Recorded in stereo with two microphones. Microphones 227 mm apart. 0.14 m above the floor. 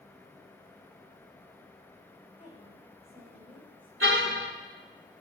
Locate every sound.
2.4 s a woman speaking: 30° left (ahead or behind), 9 m; by 3.9 s 20° left (ahead or behind), 9 m
4.0 s a car horn: 75° right (ahead or behind), 4 m